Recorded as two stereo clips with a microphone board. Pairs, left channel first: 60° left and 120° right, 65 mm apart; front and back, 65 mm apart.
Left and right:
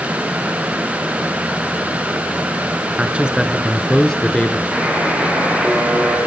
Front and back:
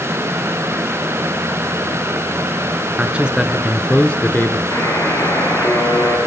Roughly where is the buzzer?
Ahead right.